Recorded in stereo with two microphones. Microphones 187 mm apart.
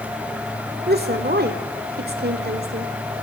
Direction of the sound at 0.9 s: 55° right (ahead or behind).